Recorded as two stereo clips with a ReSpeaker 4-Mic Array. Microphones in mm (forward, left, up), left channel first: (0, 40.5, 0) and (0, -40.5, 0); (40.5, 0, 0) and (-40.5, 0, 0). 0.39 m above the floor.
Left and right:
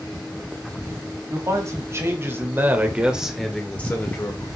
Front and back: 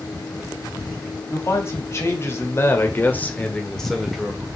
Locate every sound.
1.3 s a man speaking: 50° right, 3 m; by 4.5 s 105° left, 1.6 m